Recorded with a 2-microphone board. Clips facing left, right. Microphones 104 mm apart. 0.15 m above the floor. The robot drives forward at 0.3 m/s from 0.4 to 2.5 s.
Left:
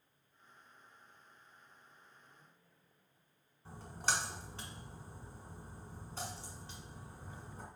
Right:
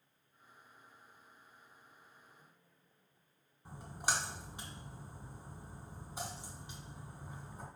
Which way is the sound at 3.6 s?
15° right (ahead or behind).